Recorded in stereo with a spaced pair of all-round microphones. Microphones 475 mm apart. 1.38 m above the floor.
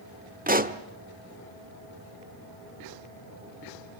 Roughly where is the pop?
Centre.